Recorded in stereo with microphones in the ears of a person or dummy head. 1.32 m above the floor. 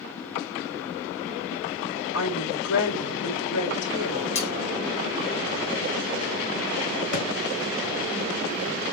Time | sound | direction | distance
2.1 | a woman speaking | 75° left (ahead or behind) | 4 m
4.3 | cutlery clinking | 30° left (ahead or behind) | 1.7 m
7.1 | a thud | 55° left (ahead or behind) | 3.5 m